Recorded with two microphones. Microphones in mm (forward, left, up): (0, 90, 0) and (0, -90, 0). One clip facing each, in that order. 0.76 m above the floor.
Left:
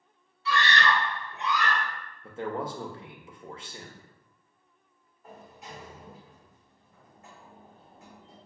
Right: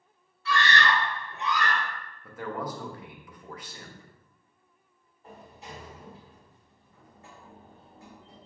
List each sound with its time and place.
0.5 s a scream: 50° right (ahead or behind), 1.6 m; by 1.8 s 45° right (ahead or behind), 3.5 m
2.2 s a man speaking: 25° left (ahead or behind), 0.5 m
5.2 s a sliding door: 30° right (ahead or behind), 1.8 m